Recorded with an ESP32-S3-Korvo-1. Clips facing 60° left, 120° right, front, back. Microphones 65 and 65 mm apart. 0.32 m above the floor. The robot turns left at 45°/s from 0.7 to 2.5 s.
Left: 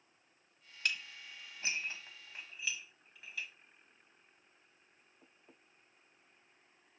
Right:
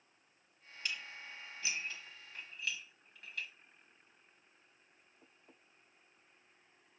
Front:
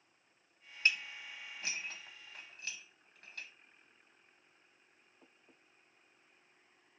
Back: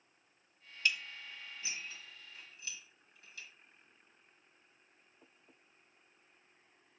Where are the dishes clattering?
50° left, 1.2 m; by 3.5 s 25° right, 1.2 m.